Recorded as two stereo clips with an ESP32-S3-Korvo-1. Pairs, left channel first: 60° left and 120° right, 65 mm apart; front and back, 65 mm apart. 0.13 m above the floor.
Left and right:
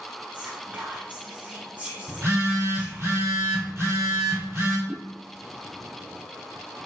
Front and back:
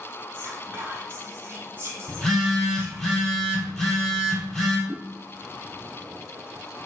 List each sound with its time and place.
0.3 s whispering: 165° right, 1.4 m
2.1 s a phone buzzing: 80° right, 2.5 m
4.9 s a whoosh: 115° left, 1.6 m